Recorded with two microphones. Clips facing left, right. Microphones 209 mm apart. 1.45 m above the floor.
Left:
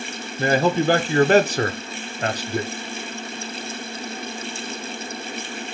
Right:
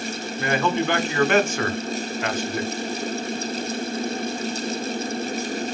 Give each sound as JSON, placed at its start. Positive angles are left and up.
{"t": 0.4, "sound": "a man speaking", "side_deg": 35, "distance_m": 0.5}